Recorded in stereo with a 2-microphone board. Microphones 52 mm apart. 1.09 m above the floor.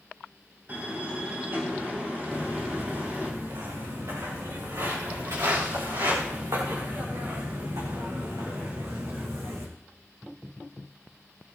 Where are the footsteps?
70° right (ahead or behind), 7 m; by 9.7 s 65° right (ahead or behind), 3.5 m.